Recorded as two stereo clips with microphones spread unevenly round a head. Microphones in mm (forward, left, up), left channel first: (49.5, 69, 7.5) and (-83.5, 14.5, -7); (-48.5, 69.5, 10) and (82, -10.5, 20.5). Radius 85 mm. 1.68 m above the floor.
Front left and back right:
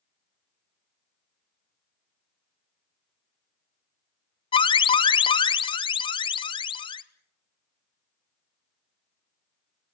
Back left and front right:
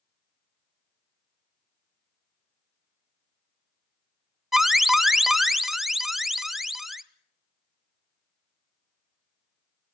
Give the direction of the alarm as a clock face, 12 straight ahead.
10 o'clock.